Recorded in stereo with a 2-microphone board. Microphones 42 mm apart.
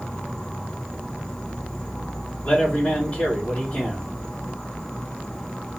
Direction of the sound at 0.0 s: 30° left (ahead or behind).